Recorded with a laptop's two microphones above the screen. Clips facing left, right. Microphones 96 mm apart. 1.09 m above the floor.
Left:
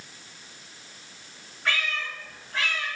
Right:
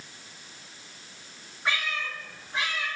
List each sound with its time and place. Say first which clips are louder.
1.6 s a cat meowing: left 1 dB; 15° right (ahead or behind), 3.5 m